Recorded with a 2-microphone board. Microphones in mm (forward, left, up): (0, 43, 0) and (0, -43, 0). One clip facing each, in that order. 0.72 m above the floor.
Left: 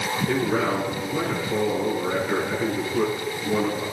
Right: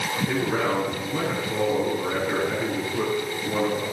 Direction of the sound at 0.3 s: 10° right (ahead or behind).